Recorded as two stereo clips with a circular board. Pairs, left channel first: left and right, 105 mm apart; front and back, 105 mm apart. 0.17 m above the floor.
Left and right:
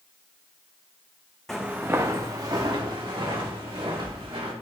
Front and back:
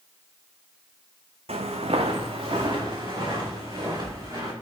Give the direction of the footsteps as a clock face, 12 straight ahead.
6 o'clock.